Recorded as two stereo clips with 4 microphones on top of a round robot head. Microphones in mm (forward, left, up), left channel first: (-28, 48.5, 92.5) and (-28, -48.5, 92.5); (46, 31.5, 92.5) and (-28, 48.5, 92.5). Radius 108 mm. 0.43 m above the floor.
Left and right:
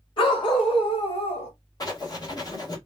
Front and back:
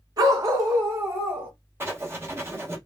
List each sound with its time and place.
0.2 s a dog barking: 125° left, 1.9 m; by 1.5 s 100° left, 1.8 m
1.8 s writing: 120° left, 1.8 m